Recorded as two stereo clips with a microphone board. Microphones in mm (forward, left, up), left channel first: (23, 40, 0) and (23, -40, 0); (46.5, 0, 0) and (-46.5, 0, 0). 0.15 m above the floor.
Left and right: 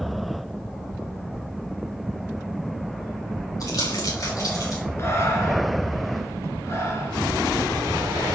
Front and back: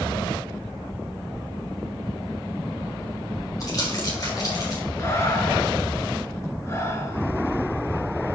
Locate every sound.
3.6 s crumpling: 50° left, 4.5 m
5.0 s breathing: 50° left, 1.8 m